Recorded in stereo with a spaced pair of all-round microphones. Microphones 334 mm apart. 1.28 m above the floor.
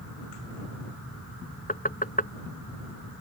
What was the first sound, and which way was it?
Knocking, 25° left (ahead or behind).